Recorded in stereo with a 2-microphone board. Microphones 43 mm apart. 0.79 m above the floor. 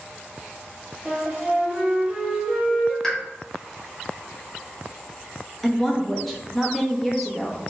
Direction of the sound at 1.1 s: 45° right (ahead or behind).